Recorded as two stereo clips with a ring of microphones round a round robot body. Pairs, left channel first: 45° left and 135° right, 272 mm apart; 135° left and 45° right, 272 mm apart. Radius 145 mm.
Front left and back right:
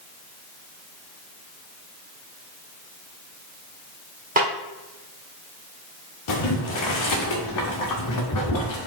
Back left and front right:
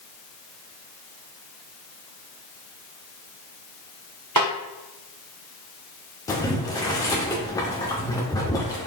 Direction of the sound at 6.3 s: 55° left.